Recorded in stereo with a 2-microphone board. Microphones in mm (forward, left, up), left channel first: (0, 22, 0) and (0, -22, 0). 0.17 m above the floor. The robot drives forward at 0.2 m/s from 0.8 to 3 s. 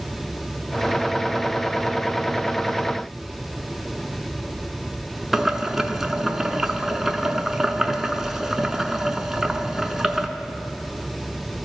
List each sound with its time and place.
5.3 s boiling: 10° right (ahead or behind), 0.5 m